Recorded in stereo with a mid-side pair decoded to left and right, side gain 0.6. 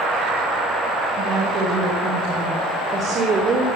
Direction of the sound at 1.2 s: 50° right.